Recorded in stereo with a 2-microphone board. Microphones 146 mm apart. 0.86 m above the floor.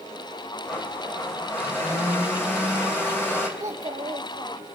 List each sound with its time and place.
0.7 s a blender: 15° left (ahead or behind), 2.5 m
3.6 s a child speaking: 25° right (ahead or behind), 2 m